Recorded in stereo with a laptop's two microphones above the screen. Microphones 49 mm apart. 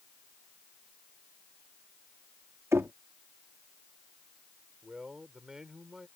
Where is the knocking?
70° right (ahead or behind).